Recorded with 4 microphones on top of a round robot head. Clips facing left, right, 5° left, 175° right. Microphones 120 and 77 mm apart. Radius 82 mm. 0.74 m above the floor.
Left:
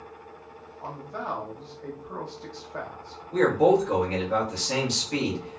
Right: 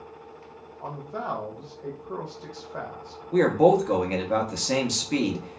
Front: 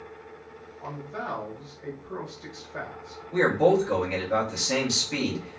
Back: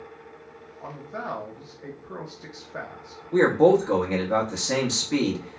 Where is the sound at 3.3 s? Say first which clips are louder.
Right 1 dB, back 3 dB; 125° right, 0.7 m.